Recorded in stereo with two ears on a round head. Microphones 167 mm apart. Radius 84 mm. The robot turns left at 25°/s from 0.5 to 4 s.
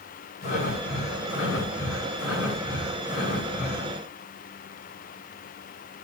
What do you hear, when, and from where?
0.4 s breathing: 125° left, 9.5 m; by 4.0 s 40° left, 9.5 m